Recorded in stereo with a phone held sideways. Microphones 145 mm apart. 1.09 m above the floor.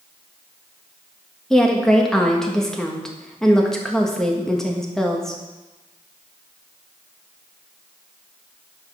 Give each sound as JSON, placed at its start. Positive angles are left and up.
{"t": 1.5, "sound": "a woman speaking", "side_deg": 5, "distance_m": 1.6}